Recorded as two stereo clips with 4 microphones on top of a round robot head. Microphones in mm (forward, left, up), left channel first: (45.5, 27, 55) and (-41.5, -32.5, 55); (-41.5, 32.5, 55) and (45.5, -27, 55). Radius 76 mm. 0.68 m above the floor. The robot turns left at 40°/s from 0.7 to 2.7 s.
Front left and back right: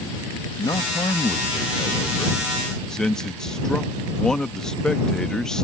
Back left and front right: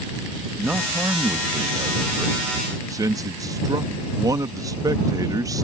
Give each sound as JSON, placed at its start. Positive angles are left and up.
{"t": 0.6, "sound": "a man speaking", "azimuth_deg": 35}